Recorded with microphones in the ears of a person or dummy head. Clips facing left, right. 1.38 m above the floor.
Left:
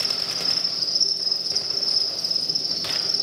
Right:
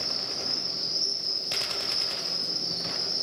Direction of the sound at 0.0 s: 55° left (ahead or behind).